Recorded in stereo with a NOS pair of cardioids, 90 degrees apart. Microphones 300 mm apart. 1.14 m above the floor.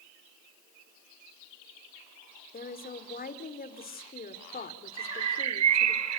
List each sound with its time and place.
2.5 s a woman speaking: 30° left, 4 m
5.0 s a bird: 65° right, 1.6 m